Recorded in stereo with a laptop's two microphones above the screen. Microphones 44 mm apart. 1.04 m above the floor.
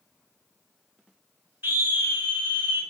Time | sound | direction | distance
1.6 | a scream | 60° right (ahead or behind) | 1.2 m